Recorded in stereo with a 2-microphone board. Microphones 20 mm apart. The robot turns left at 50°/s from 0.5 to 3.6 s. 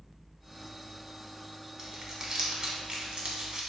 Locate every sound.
1.8 s crumpling: 20° right (ahead or behind), 0.8 m; by 3.7 s 40° right (ahead or behind), 0.8 m